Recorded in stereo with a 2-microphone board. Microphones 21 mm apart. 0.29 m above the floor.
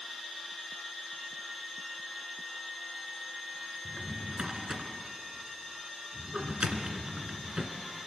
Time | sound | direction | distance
3.9 | a drawer | 45° right (ahead or behind) | 2 m